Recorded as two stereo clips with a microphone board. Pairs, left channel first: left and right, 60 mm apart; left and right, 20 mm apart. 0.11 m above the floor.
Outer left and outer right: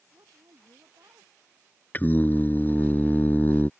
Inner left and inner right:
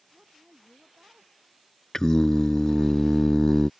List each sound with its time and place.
0.1 s a woman speaking: 65° right (ahead or behind)
1.9 s singing: 30° left (ahead or behind)